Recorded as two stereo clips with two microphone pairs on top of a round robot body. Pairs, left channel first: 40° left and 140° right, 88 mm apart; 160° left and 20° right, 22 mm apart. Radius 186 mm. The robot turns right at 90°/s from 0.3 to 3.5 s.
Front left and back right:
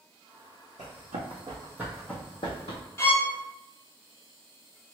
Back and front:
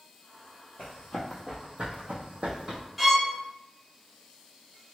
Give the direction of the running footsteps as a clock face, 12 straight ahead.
6 o'clock.